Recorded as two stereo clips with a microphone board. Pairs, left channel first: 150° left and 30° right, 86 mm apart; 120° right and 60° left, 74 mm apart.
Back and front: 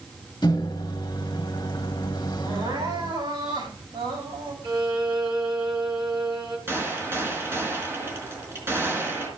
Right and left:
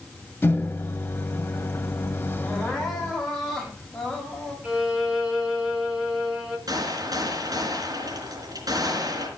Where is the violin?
20° right, 3 m.